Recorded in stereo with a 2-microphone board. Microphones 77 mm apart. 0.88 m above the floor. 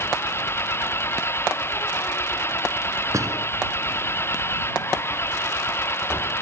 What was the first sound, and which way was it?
An engine running, 30° left (ahead or behind).